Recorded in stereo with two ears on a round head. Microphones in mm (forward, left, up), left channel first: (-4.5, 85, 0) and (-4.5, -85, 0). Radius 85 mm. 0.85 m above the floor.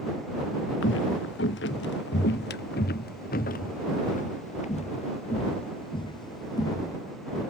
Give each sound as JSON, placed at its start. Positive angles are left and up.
{"t": 0.8, "sound": "footsteps", "side_deg": 70}